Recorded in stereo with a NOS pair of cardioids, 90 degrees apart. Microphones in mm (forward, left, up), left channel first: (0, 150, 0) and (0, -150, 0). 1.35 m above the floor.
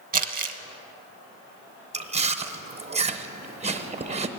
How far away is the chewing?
About 0.7 m.